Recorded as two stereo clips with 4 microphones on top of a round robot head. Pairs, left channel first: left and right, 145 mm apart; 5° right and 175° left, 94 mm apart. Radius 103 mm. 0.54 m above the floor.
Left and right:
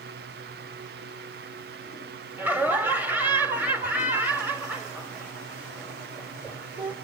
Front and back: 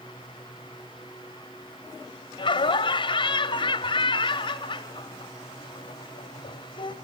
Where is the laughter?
15° right, 1.8 m.